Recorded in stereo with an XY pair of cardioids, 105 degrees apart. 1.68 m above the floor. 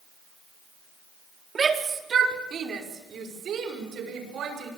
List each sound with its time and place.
1.6 s a shout: 35° right, 4 m; by 4.7 s 65° right, 8 m